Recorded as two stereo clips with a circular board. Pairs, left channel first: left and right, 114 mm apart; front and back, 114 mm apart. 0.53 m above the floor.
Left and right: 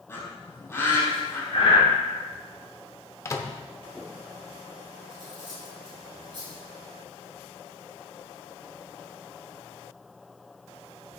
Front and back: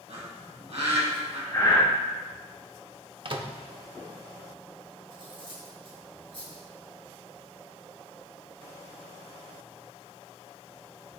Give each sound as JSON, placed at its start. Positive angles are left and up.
{"t": 0.1, "sound": "a bird", "azimuth_deg": 160, "distance_m": 4.0}
{"t": 1.5, "sound": "breathing", "azimuth_deg": 60, "distance_m": 3.0}
{"t": 3.2, "sound": "a microwave", "azimuth_deg": 150, "distance_m": 0.8}
{"t": 5.1, "sound": "cutlery clinking", "azimuth_deg": -140, "distance_m": 3.5}